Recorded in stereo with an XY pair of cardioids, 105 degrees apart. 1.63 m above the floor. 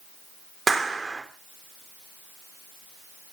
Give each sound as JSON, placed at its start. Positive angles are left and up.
{"t": 0.7, "sound": "a clap", "azimuth_deg": -25, "distance_m": 4.0}